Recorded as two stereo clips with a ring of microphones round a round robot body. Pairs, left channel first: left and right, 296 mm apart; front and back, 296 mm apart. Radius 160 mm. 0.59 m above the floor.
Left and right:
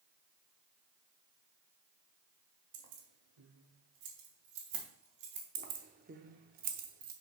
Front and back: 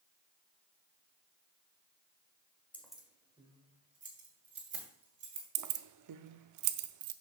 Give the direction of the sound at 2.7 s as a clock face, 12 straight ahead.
3 o'clock.